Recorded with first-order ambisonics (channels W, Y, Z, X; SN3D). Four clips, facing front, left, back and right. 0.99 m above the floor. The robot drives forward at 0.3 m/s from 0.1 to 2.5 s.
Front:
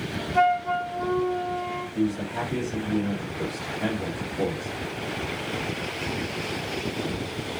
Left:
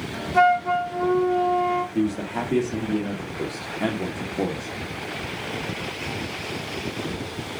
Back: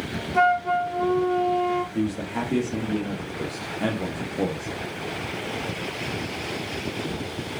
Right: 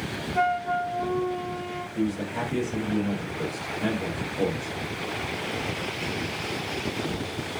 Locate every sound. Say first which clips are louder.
0.3 s a flute: left 7 dB, back 2 dB; 95° left, 0.6 m; by 1.9 s 140° left, 0.8 m
1.9 s a man speaking: left 3 dB, even; 120° left, 1.4 m; by 4.7 s 125° left, 1.5 m